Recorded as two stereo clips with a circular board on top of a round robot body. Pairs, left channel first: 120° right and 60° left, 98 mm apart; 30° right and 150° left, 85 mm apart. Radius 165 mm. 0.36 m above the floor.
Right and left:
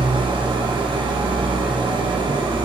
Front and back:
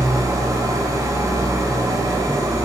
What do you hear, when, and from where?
0.0 s an engine running: 100° left, 1.8 m